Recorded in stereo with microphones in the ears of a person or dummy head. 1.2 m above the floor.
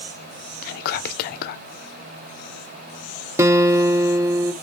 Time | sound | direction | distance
0.6 | whispering | 60° left (ahead or behind) | 0.5 m
3.4 | a guitar | 10° right (ahead or behind) | 0.6 m